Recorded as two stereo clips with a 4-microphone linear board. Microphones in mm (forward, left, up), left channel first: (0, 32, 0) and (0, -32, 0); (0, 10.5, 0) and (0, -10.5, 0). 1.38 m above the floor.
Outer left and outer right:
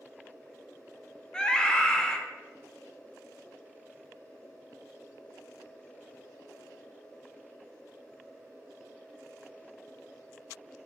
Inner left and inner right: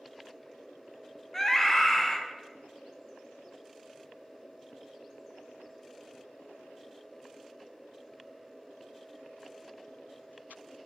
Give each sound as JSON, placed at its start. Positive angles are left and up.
{"t": 1.3, "sound": "a scream", "side_deg": 10, "distance_m": 0.6}